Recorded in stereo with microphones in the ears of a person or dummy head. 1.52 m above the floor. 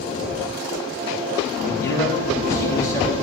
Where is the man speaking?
20° left (ahead or behind), 4 m.